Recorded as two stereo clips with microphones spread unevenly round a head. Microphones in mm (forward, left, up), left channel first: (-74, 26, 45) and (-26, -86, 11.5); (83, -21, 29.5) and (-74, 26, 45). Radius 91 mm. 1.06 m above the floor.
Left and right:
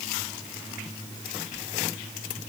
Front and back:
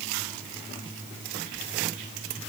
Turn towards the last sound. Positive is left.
No sound to turn to.